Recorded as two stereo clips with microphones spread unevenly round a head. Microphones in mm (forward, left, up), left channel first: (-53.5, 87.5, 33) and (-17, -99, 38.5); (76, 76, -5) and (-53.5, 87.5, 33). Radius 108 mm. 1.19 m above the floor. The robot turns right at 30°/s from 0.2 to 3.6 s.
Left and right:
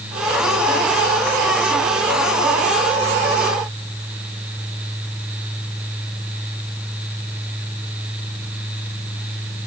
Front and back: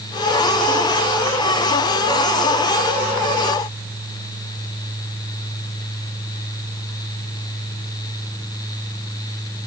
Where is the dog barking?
I don't hear a dog barking.